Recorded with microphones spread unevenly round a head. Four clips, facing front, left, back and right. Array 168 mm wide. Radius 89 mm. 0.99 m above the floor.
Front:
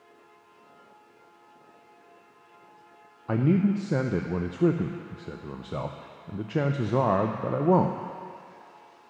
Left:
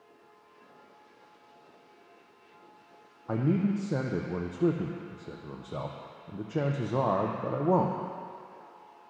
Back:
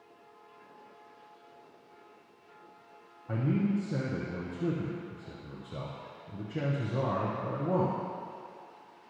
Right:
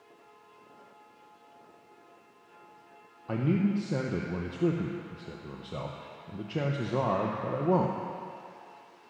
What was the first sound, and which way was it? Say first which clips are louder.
A man speaking: even, front 6 dB; straight ahead.